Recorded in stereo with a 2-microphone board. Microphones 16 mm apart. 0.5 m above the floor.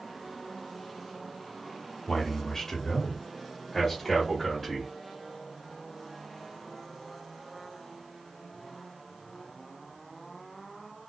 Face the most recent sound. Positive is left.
turn(degrees=-5)  # may be behind; listen again after turning